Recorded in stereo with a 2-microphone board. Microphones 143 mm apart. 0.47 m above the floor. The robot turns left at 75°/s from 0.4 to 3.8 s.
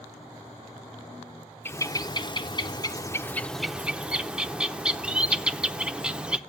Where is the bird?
150° left, 0.6 m; by 6.4 s 10° right, 0.6 m.